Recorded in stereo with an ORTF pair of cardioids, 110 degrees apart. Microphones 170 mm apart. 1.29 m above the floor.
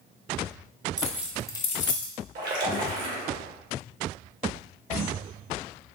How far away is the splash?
About 1.3 m.